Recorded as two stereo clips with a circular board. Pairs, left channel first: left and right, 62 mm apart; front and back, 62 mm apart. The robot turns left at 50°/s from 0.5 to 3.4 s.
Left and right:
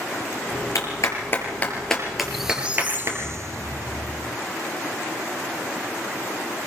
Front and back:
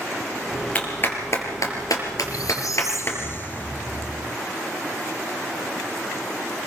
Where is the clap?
70° left, 5 m; by 3.2 s 55° right, 5 m.